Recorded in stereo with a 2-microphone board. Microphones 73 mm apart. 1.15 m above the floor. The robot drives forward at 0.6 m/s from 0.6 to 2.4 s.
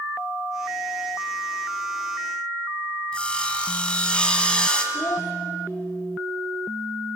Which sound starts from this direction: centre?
Sawing, at 3.1 s.